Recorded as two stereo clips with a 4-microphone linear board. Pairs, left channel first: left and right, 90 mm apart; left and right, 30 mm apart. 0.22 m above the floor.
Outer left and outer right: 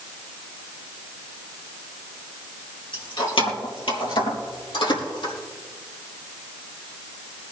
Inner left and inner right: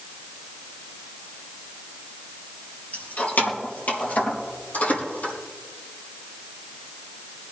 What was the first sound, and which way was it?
Keys jangling, 65° left (ahead or behind).